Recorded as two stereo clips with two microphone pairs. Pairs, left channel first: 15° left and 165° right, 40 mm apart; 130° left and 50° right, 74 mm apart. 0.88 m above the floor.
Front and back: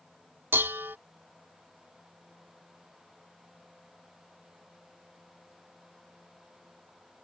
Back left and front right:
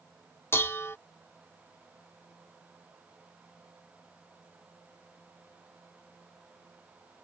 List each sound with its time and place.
0.5 s dishes clattering: 170° right